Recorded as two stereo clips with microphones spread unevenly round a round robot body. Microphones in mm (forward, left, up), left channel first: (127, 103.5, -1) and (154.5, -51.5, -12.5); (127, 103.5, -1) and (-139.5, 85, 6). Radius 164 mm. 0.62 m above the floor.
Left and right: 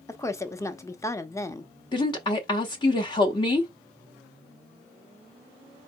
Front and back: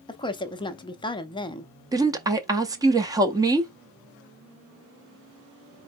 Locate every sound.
0.1 s a woman speaking: 45° left, 0.6 m
1.9 s a woman speaking: 120° left, 0.7 m